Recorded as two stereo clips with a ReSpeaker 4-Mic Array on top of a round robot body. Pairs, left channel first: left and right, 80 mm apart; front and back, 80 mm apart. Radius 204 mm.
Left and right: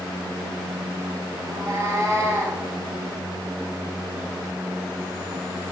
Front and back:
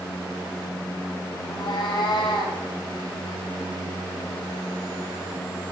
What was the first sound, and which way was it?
A cat meowing, 40° right.